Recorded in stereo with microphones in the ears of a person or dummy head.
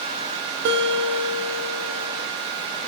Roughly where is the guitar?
Right.